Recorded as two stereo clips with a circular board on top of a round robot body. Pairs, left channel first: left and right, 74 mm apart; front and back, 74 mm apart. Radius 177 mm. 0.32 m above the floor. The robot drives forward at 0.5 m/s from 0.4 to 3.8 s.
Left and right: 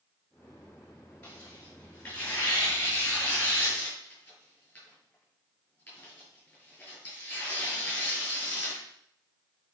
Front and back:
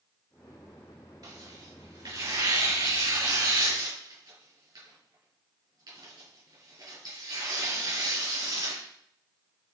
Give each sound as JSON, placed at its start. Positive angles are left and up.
{"t": 1.2, "sound": "tearing paper", "azimuth_deg": 155, "distance_m": 5.0}